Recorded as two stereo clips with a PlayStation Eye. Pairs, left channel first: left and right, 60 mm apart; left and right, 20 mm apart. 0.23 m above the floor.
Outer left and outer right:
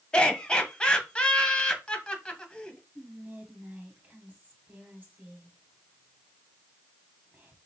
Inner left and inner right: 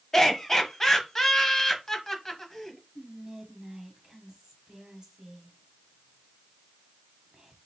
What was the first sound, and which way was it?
Laughter, 15° left (ahead or behind).